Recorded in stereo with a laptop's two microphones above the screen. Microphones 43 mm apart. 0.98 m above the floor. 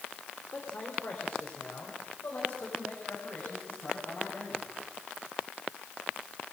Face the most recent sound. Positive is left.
turn(degrees=50)  # may be behind; listen again after turning